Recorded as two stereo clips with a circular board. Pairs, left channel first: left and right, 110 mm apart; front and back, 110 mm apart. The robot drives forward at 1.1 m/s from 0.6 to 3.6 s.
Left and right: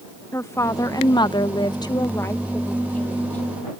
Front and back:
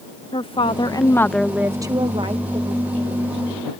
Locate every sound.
0.3 s a woman speaking: 30° left; by 3.5 s 165° left